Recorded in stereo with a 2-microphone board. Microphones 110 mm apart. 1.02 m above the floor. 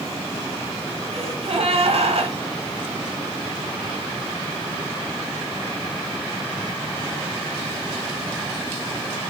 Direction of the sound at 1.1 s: 65° right (ahead or behind).